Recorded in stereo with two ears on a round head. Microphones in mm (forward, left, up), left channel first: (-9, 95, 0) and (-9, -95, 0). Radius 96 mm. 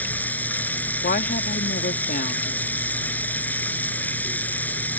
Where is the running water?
10° left (ahead or behind).